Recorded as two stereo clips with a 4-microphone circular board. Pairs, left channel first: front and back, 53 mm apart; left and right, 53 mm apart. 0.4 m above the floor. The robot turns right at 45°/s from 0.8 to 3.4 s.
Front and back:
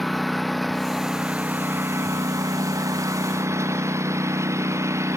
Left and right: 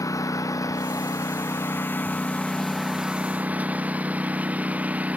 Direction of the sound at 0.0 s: 90° left.